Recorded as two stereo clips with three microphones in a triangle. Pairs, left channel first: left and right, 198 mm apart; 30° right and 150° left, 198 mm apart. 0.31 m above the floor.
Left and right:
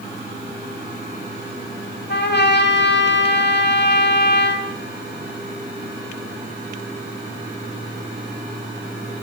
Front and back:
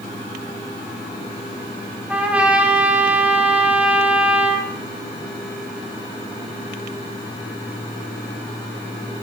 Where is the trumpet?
70° left, 0.9 m.